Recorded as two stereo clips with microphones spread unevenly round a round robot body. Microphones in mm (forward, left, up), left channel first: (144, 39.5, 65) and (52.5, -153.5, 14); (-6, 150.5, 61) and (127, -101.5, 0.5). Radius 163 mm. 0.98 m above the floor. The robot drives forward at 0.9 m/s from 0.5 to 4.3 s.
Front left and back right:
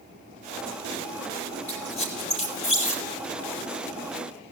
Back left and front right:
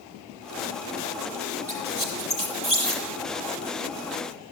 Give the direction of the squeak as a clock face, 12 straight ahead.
12 o'clock.